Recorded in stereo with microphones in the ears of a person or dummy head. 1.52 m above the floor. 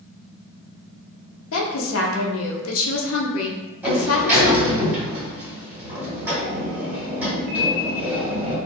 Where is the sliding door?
15° right (ahead or behind), 1.4 m.